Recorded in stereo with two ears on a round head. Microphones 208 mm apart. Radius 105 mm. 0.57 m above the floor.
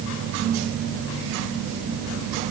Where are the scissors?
No scissors in this recording.